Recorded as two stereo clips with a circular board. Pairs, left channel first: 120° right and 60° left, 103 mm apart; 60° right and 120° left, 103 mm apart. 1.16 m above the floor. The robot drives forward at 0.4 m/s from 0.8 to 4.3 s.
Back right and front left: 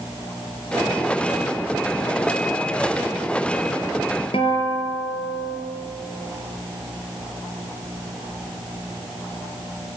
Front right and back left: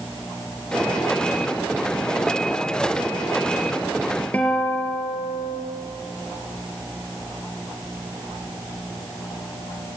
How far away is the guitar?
About 5.5 m.